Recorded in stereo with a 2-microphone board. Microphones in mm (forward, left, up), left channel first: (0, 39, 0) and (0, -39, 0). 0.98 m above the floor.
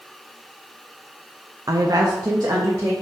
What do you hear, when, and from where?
1.7 s a woman speaking: 45° right (ahead or behind), 0.7 m